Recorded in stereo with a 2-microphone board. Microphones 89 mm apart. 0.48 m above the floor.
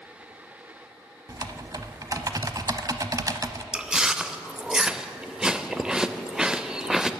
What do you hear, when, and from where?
1.3 s typing on a keyboard: 45° right (ahead or behind), 0.6 m
3.7 s chewing: 10° right (ahead or behind), 0.5 m